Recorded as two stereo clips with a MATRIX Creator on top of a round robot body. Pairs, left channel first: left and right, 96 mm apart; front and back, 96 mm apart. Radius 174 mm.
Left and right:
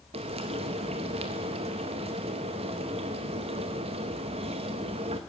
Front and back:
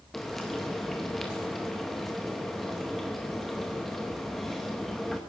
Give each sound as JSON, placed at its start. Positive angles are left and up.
{"t": 0.1, "sound": "frying", "azimuth_deg": -90, "distance_m": 0.6}